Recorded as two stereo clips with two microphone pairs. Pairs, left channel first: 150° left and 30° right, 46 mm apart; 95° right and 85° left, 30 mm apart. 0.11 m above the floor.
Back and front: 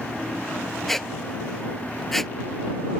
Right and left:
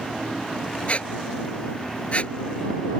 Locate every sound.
0.9 s a squeak: 120° right